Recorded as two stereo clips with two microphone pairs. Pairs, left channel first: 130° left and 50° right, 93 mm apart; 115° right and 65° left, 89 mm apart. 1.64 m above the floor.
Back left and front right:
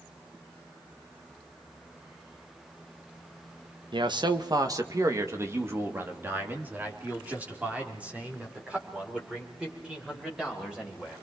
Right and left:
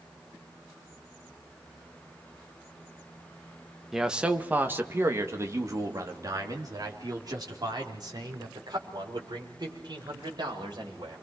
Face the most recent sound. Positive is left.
turn(degrees=30)